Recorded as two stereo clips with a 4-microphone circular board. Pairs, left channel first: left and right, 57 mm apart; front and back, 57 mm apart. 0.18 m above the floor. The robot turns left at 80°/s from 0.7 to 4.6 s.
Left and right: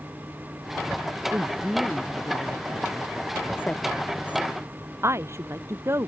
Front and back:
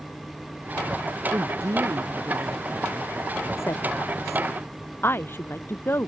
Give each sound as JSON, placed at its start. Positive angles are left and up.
{"t": 1.3, "sound": "a woman speaking", "azimuth_deg": -145}